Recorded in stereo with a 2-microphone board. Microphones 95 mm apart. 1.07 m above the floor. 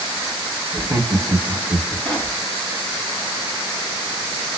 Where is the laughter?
25° right (ahead or behind), 1.5 m.